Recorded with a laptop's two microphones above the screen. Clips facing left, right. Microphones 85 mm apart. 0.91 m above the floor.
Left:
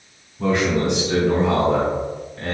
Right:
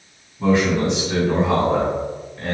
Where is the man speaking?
55° left (ahead or behind), 1.9 m.